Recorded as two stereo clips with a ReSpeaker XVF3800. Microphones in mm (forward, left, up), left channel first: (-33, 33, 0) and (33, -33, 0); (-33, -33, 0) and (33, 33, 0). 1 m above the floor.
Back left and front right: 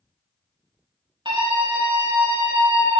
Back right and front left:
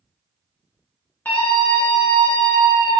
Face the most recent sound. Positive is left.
turn(degrees=-70)